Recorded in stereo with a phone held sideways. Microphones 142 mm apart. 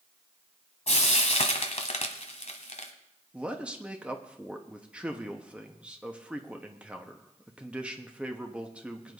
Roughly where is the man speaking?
Centre.